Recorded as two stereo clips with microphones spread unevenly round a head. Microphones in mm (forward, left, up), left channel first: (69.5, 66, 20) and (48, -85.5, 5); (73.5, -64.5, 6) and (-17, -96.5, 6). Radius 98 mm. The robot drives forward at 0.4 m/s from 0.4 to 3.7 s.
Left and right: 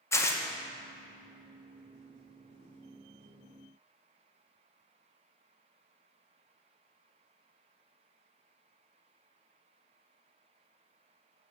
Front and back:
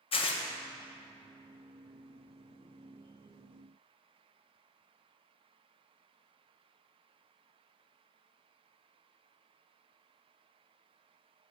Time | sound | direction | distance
0.1 | tearing paper | 15° left | 0.6 m